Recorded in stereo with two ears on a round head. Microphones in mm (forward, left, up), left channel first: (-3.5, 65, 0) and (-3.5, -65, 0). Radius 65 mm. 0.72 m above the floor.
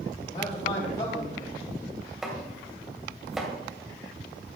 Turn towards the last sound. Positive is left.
turn(degrees=0)  # may be behind; listen again after turning